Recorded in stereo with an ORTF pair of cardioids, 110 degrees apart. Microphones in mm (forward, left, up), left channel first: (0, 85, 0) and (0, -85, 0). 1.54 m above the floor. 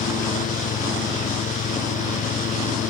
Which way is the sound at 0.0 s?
50° left.